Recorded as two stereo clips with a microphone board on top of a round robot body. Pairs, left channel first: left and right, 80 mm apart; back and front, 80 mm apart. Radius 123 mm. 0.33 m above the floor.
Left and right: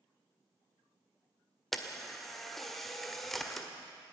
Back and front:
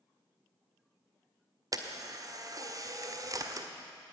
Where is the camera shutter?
5° left, 1.9 m.